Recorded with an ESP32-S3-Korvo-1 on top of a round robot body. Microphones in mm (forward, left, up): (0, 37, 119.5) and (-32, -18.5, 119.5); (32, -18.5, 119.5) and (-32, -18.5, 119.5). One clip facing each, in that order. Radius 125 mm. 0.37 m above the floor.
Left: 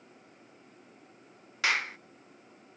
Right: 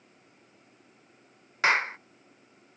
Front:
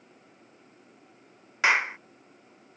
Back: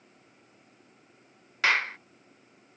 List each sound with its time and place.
1.6 s a clap: 70° right